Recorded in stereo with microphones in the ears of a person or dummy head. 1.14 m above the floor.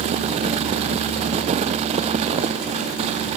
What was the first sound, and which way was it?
Only background noise.